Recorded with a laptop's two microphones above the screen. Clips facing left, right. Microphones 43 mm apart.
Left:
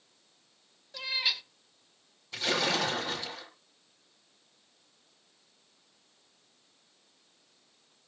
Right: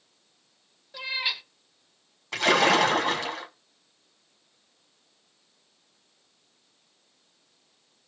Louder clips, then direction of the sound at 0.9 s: Right 2 dB; 15° right (ahead or behind).